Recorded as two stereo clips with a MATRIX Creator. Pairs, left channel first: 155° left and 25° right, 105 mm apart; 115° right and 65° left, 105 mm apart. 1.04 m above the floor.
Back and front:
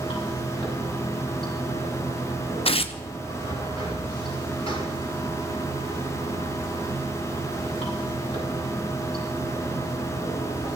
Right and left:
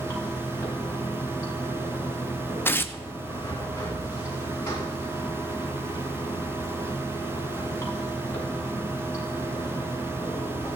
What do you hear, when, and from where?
0.0 s running water: straight behind, 6.5 m
2.6 s tearing paper: straight behind, 0.7 m